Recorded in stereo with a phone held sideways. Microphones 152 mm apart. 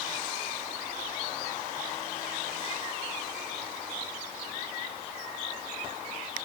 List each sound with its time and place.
Only background noise.